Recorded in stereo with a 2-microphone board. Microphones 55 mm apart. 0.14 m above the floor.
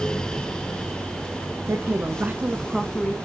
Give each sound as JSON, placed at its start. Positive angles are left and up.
{"t": 1.7, "sound": "a woman speaking", "side_deg": -50, "distance_m": 1.6}